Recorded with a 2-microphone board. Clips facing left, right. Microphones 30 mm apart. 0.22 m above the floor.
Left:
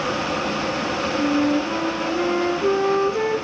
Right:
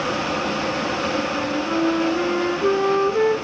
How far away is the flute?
About 1.0 m.